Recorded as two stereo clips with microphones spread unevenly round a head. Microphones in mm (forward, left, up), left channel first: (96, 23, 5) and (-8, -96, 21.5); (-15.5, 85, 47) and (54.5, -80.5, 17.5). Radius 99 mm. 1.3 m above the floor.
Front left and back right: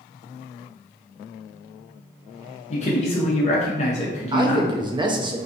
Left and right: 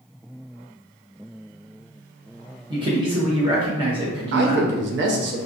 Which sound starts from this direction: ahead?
A man speaking, at 2.7 s.